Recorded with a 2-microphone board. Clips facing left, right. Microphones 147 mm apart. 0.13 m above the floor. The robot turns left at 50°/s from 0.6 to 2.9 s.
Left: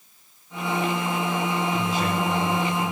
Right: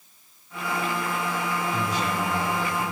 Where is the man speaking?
130° right, 7 m; by 2.9 s 170° left, 7 m.